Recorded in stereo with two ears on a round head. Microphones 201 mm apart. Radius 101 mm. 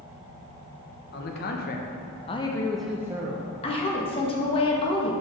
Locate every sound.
1.1 s a man speaking: 50° left (ahead or behind), 1.0 m; by 3.5 s 25° right (ahead or behind), 0.8 m
3.6 s a woman speaking: 25° left (ahead or behind), 1.0 m